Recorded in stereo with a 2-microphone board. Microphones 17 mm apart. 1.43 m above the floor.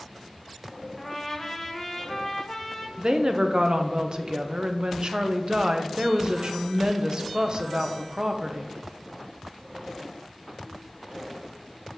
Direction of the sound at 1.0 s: 10° left (ahead or behind).